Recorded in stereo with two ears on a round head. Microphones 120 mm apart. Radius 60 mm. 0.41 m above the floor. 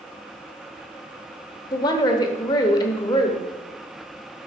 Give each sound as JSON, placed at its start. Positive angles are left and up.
{"t": 1.7, "sound": "a woman speaking", "side_deg": 30, "distance_m": 1.0}